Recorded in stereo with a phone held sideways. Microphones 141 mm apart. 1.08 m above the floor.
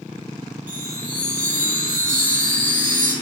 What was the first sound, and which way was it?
A chime, 80° right.